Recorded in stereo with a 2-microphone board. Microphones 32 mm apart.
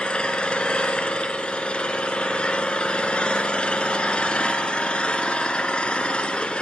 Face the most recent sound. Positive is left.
turn(degrees=35)  # may be behind; listen again after turning